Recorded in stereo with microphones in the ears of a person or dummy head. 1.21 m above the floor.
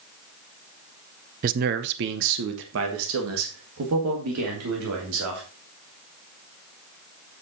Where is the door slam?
I don't hear a door slam.